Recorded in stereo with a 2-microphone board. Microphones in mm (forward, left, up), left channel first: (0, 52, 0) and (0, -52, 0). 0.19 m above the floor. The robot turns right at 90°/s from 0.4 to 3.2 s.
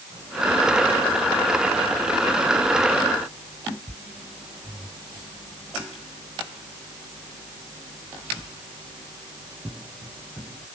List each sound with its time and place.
Only background noise.